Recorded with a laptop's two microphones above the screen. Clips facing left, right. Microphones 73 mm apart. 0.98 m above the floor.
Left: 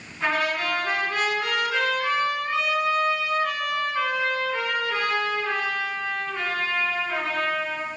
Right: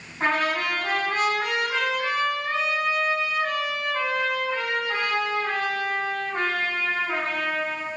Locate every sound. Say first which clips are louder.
0.2 s a trumpet: right 1 dB; 50° right (ahead or behind), 6 m